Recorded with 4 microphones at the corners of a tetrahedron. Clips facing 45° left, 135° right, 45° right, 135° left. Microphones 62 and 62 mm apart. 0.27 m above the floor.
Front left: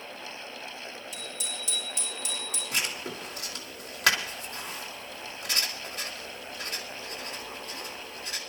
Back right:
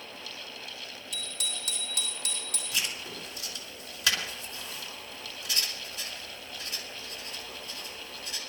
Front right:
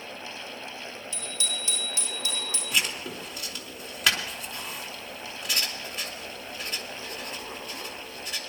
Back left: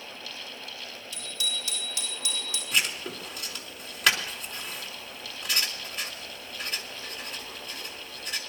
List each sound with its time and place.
1.1 s a bicycle bell: 110° right, 6 m; by 2.6 s 95° right, 7 m
2.7 s writing: 45° left, 3.5 m